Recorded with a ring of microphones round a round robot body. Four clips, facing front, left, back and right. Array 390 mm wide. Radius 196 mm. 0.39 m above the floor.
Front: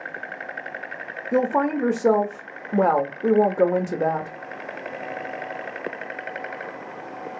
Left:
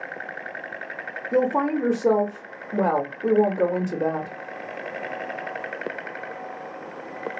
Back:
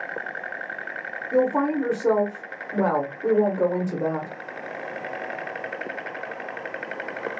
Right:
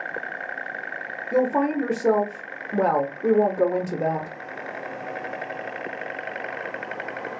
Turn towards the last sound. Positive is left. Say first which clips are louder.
# even, even
turn(degrees=-20)